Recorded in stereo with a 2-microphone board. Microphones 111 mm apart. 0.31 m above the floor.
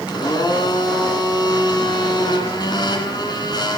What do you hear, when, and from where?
0.1 s a blender: 40° left (ahead or behind), 2 m